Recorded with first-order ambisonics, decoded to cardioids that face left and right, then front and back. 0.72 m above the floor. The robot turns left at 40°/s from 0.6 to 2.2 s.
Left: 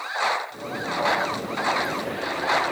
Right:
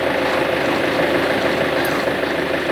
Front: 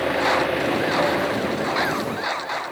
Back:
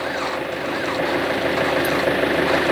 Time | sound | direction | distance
0.0 | an engine running | 80° right | ?